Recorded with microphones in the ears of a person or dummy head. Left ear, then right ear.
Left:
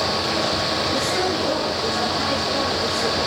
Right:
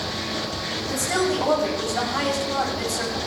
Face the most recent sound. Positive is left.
turn(degrees=-40)  # may be behind; listen again after turning